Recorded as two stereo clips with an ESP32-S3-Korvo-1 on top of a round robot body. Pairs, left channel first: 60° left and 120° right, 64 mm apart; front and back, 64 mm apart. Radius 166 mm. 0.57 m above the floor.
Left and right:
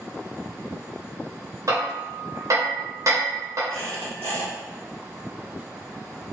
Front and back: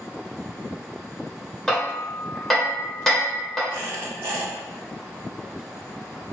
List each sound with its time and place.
1.7 s hammering: 85° right, 1.2 m
3.7 s a squeak: 115° left, 0.9 m